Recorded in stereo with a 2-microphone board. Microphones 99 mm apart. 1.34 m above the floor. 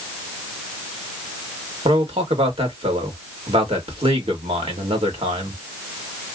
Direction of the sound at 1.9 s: 80° right.